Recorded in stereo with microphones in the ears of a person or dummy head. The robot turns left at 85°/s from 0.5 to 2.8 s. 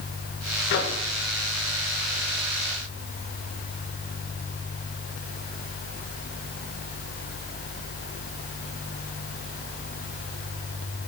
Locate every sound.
0.7 s a microwave: 55° left (ahead or behind), 1.7 m; by 1.0 s 75° left (ahead or behind), 1.7 m